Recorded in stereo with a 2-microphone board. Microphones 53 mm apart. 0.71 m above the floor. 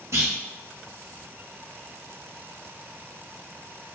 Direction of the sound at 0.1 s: 70° right (ahead or behind).